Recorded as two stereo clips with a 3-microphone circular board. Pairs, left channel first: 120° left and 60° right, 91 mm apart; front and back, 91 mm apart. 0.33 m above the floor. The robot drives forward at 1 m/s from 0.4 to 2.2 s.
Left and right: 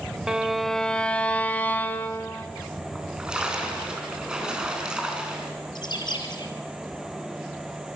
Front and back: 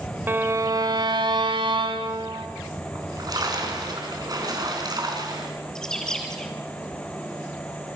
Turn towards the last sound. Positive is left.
turn(degrees=85)